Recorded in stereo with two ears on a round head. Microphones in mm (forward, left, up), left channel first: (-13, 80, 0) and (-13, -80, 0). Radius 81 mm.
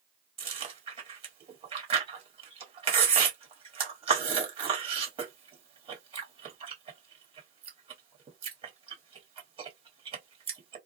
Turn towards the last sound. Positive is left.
turn(degrees=-35)  # may be behind; listen again after turning